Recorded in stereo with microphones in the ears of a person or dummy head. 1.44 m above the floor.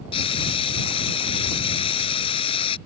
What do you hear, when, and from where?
0.1 s frying: 25° left (ahead or behind)